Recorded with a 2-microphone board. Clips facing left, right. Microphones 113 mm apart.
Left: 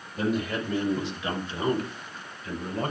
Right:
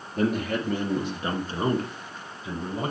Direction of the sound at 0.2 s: 60° right (ahead or behind).